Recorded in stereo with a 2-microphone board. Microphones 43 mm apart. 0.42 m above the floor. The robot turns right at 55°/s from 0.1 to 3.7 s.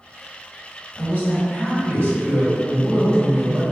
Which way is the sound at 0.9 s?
35° left.